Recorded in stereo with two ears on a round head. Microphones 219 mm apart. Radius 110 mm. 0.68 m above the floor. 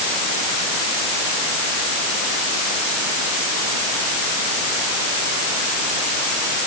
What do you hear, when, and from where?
Only background noise.